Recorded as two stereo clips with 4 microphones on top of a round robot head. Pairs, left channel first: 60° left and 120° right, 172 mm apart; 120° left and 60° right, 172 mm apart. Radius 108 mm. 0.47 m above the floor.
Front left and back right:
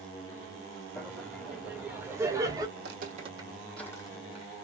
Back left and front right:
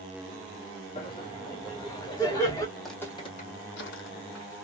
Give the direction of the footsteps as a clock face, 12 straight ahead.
5 o'clock.